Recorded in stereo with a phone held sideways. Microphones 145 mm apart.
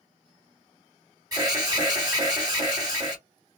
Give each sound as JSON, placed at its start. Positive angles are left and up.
{"t": 1.3, "sound": "an alarm", "side_deg": -25, "distance_m": 2.0}